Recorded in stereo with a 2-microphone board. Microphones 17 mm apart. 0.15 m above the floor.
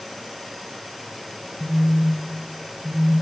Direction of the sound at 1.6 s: 50° right (ahead or behind).